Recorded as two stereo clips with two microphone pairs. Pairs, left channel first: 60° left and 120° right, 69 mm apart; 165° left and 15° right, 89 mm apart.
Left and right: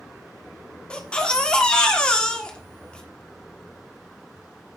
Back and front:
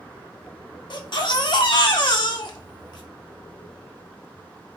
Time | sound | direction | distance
0.9 | a baby crying | 135° left | 1.6 m